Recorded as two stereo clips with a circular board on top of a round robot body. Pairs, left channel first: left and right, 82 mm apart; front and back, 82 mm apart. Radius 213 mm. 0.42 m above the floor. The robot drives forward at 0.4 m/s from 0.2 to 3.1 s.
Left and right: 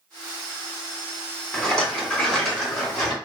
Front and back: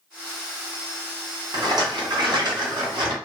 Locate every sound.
1.5 s a rattle: 170° left, 1.6 m